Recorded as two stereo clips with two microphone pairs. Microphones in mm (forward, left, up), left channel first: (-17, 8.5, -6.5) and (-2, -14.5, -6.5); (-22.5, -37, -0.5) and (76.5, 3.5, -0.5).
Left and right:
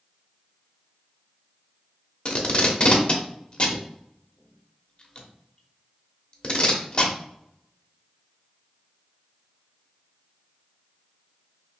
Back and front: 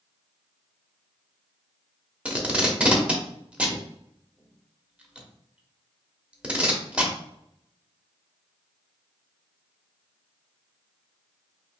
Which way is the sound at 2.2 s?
95° left.